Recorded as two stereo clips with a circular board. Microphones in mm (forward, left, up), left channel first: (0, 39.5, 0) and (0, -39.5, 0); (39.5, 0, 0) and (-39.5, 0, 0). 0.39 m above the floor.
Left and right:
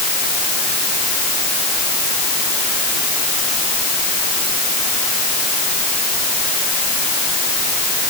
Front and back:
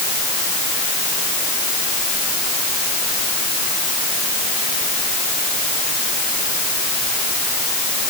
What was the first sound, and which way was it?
Only background noise.